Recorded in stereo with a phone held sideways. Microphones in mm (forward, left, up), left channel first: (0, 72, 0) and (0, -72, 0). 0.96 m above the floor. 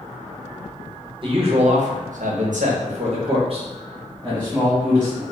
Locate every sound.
1.2 s a man speaking: 40° right (ahead or behind), 0.7 m; by 5.2 s 30° right (ahead or behind), 1.8 m